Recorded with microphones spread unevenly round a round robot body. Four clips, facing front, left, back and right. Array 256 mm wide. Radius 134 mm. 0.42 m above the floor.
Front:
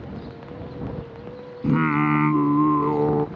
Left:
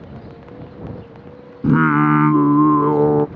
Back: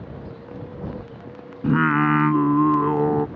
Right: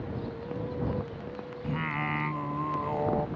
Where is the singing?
90° left.